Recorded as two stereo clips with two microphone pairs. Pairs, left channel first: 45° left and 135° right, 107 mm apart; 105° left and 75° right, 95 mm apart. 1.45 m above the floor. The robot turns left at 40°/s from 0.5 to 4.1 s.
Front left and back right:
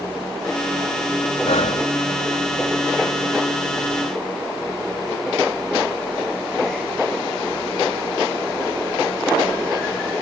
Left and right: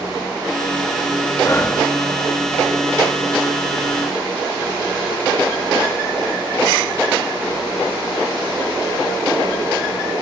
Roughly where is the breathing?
Ahead left.